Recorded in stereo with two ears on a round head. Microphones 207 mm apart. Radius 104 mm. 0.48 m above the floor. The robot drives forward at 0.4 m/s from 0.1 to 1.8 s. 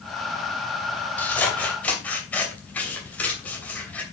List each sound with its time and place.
1.2 s scissors: 10° left (ahead or behind), 2.5 m